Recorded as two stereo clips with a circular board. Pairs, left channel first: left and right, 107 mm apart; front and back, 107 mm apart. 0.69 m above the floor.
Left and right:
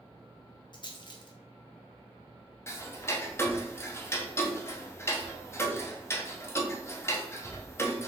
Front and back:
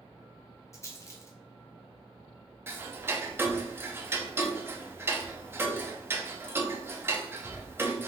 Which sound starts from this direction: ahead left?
A rattle, at 0.7 s.